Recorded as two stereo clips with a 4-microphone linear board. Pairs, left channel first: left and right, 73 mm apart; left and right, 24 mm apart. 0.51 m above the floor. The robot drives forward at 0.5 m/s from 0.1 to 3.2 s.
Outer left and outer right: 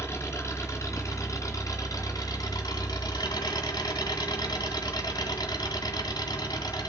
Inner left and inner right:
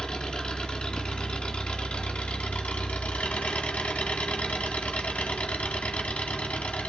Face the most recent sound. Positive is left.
turn(degrees=70)  # may be behind; listen again after turning